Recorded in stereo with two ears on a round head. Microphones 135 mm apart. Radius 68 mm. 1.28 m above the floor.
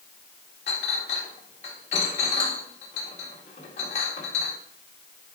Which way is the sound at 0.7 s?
50° left (ahead or behind).